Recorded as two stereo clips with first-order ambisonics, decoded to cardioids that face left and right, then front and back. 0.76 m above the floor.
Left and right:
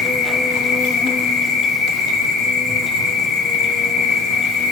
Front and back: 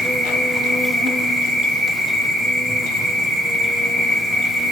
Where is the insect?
110° left, 0.8 m.